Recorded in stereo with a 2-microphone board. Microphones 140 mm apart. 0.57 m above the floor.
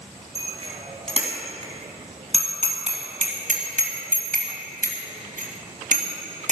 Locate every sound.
0.3 s a bicycle bell: 40° right (ahead or behind), 4 m; by 6.5 s 65° right (ahead or behind), 3 m